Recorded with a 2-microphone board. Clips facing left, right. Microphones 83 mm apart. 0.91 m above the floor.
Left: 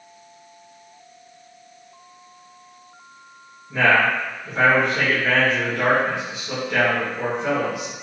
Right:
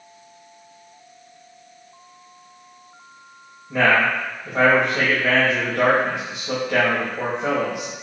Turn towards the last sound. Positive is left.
turn(degrees=-55)  # may be behind; listen again after turning